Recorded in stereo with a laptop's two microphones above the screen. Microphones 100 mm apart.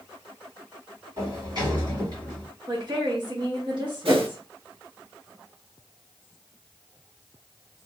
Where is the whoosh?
65° right (ahead or behind), 1.2 m.